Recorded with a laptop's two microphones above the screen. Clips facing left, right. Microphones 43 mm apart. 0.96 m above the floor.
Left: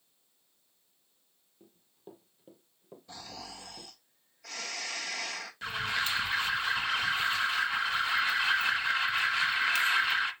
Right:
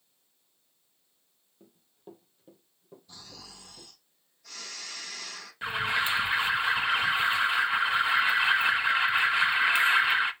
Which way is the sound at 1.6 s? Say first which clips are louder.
Right 2 dB; 10° right (ahead or behind).